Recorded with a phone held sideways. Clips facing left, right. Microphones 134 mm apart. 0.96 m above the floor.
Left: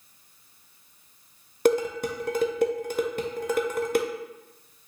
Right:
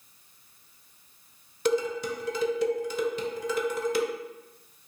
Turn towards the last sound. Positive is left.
turn(degrees=50)  # may be behind; listen again after turning